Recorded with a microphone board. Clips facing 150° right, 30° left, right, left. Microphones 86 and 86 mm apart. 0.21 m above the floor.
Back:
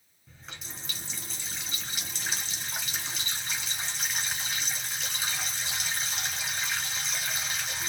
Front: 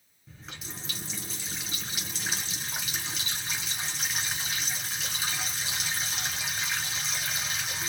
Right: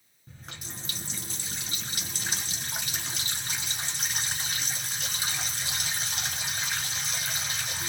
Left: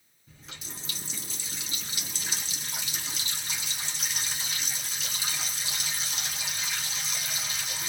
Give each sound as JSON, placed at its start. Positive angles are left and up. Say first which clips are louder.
{"t": 0.3, "sound": "a running tap", "louder": "front 2 dB, right 2 dB", "azimuth_deg": -60, "distance_m": 1.7}